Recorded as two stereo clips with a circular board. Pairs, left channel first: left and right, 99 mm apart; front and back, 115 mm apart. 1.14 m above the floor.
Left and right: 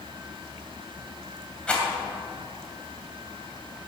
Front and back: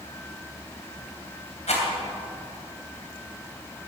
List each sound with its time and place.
1.7 s a rattle: 10° left, 3 m